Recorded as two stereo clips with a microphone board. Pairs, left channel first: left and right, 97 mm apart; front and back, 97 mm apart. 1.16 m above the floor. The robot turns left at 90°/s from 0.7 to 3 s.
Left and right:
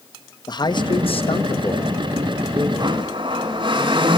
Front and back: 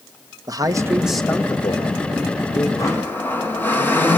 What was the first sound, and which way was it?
A man speaking, 130° left.